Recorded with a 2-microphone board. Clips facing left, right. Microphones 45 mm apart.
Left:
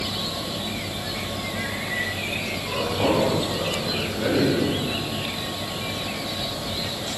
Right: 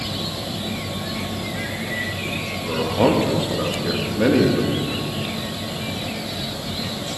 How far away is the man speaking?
About 1.5 m.